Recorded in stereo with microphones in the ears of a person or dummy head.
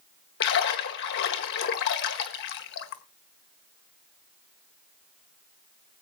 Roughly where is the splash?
Left.